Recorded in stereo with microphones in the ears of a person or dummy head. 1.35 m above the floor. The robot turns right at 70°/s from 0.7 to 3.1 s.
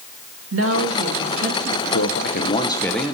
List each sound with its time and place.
0.5 s a woman speaking: 110° right, 2.0 m; by 1.8 s 30° right, 2.0 m
1.9 s a man speaking: 100° left, 0.8 m; by 3.1 s 175° right, 0.8 m